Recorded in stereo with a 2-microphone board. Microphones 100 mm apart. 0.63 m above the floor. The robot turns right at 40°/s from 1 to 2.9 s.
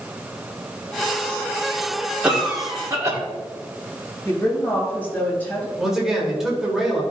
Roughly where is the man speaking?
Centre.